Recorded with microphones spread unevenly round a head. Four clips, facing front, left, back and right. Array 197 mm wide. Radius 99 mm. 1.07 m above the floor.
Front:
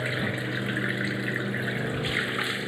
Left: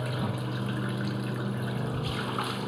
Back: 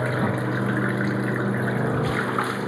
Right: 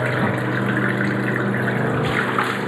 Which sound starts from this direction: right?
Running water, at 0.0 s.